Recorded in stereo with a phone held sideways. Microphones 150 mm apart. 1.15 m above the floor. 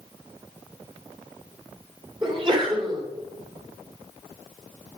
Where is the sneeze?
35° right (ahead or behind), 2.5 m.